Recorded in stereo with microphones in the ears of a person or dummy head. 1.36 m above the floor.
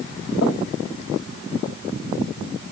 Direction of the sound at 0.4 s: 65° left (ahead or behind).